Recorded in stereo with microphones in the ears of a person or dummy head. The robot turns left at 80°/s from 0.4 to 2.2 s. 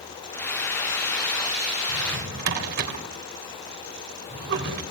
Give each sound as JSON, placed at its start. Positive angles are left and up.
{"t": 1.9, "sound": "a drawer", "side_deg": -80, "distance_m": 3.0}